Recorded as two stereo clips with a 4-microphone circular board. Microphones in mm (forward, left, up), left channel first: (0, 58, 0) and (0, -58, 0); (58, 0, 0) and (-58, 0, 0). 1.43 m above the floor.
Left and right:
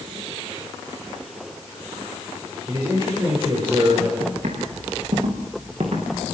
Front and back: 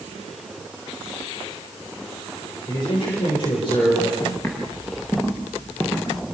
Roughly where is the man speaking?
Ahead right.